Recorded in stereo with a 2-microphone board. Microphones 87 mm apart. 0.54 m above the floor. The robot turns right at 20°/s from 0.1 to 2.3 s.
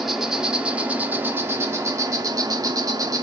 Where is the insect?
Straight behind, 0.7 m; by 3.2 s 135° right, 0.7 m.